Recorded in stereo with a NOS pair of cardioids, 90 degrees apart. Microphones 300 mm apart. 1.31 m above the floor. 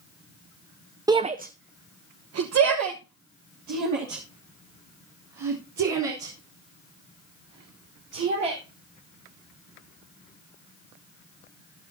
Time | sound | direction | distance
1.1 | a shout | 10° right | 0.6 m